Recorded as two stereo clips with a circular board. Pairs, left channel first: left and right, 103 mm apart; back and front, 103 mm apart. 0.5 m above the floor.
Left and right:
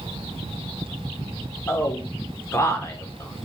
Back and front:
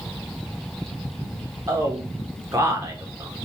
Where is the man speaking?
40° left, 1.2 m.